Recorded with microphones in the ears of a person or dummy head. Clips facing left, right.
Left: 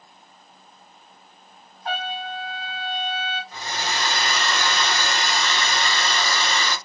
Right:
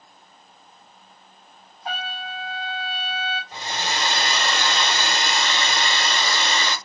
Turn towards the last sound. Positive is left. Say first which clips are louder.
# right 1 dB
turn(degrees=-25)  # may be behind; listen again after turning